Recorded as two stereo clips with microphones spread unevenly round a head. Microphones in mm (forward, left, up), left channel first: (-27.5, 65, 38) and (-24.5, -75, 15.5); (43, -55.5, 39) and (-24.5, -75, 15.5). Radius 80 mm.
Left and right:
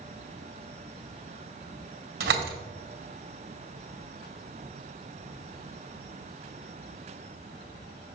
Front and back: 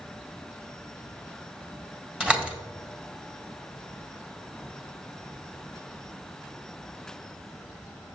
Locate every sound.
2.2 s a door slam: 85° right, 2 m